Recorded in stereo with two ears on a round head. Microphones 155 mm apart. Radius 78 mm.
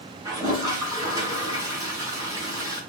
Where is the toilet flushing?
20° right (ahead or behind), 6 m.